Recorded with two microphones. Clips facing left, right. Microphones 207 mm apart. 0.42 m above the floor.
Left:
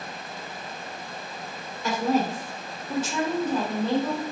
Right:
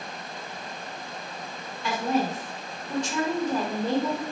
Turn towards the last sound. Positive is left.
turn(degrees=-40)  # may be behind; listen again after turning